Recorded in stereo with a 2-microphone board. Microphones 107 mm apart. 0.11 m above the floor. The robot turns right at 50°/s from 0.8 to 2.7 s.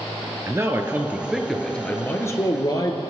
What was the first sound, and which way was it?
A man speaking, 35° right.